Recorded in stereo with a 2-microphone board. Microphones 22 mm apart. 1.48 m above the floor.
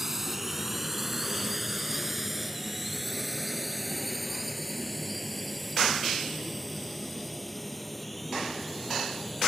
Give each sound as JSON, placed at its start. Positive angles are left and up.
{"t": 0.0, "sound": "a drone", "side_deg": -15}